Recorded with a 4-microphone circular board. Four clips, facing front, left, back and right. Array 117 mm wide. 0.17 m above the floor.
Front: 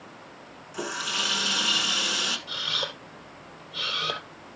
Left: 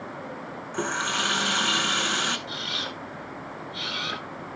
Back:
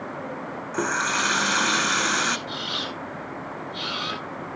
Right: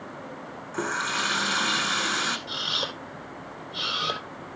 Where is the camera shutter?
50° right, 5.5 m.